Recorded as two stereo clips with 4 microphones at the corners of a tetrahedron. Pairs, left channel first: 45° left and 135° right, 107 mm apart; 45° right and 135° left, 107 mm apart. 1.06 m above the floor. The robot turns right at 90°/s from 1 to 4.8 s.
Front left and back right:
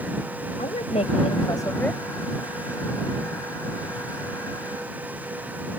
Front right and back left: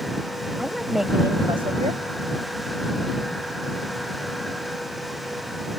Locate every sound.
0.6 s a woman speaking: 45° left; by 2.0 s 140° left